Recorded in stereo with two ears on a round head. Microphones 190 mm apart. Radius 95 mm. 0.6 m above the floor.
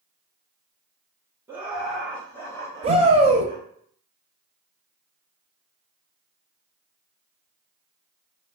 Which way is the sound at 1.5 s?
10° right (ahead or behind).